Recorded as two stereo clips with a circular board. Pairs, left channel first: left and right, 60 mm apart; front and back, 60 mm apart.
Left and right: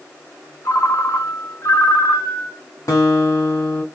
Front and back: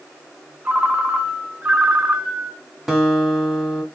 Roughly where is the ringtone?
Behind left.